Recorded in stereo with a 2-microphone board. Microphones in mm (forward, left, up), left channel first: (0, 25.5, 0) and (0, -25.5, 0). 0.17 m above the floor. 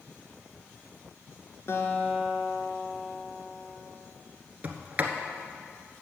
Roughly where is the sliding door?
Right.